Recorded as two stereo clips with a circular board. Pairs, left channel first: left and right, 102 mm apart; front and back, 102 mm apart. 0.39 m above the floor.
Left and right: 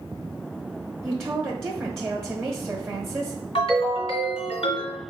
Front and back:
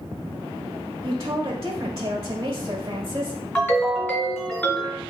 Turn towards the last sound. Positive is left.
turn(degrees=70)